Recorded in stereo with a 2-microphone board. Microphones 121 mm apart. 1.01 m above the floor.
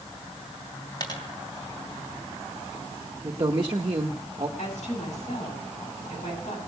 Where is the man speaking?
40° right (ahead or behind), 0.9 m.